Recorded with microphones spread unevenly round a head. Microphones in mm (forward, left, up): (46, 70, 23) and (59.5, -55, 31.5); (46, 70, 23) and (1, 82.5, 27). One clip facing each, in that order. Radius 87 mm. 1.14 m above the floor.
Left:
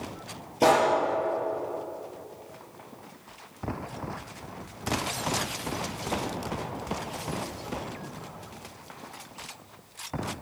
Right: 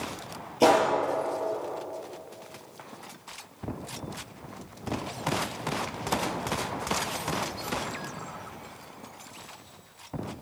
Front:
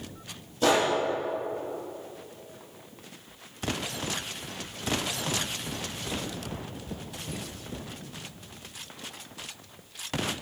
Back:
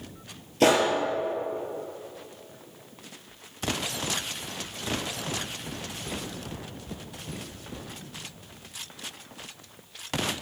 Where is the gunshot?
165° right, 5 m.